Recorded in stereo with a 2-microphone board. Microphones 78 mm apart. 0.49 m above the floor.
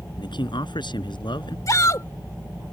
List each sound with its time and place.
0.2 s a man speaking: 75° left (ahead or behind)
1.7 s a shout: 45° left (ahead or behind)